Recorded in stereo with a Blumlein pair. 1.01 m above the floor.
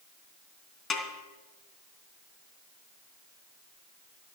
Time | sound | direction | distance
0.9 | a snare drum | 25° left | 3 m